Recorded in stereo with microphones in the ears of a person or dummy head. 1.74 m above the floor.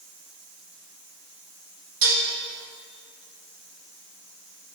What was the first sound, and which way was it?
Dishes clattering, 65° right (ahead or behind).